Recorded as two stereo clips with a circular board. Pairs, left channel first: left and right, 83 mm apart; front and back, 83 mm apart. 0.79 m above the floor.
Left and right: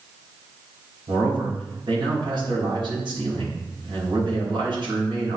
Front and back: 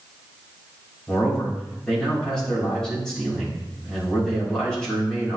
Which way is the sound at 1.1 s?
80° right.